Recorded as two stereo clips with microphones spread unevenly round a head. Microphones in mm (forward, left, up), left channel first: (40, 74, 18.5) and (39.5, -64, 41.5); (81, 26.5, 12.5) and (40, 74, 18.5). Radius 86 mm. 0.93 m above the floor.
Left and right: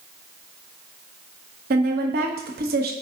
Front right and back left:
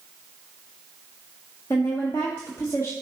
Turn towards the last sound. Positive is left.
turn(degrees=-105)